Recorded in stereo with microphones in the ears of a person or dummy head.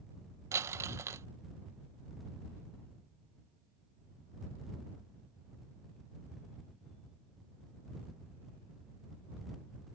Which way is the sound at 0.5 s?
15° right (ahead or behind).